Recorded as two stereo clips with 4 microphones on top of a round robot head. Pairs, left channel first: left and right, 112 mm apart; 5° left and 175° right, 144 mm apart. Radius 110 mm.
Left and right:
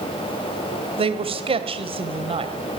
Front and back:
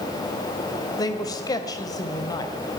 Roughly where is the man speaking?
Ahead right.